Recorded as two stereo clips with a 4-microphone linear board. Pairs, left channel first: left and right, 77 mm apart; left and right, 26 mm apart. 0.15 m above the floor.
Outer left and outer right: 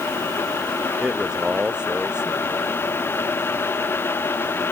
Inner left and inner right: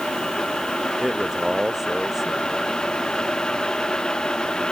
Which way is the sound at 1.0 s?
10° right (ahead or behind).